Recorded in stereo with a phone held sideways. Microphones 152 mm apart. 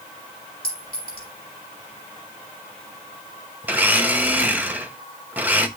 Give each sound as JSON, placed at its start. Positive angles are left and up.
{"t": 0.6, "sound": "a clink", "side_deg": 85, "distance_m": 6.5}
{"t": 3.6, "sound": "a blender", "side_deg": -10, "distance_m": 1.2}